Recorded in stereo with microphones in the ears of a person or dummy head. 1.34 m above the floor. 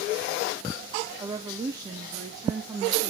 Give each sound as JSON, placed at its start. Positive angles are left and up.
{"t": 1.2, "sound": "a woman speaking", "side_deg": -25, "distance_m": 0.8}